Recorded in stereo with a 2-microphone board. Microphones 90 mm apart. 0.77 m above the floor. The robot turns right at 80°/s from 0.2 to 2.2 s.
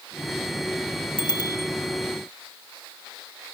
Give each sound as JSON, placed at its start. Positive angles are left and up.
{"t": 1.2, "sound": "a bicycle bell", "side_deg": 65, "distance_m": 3.5}